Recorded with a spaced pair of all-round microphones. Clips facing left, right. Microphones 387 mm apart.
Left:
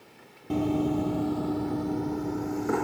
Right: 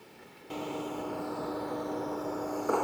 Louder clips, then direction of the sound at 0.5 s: Left 11 dB; 55° left (ahead or behind).